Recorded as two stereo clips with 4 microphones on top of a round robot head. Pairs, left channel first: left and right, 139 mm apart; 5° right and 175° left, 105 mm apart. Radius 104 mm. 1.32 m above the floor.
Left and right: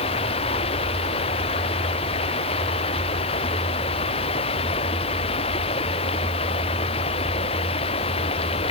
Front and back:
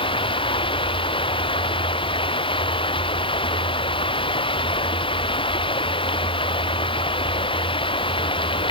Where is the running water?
35° left.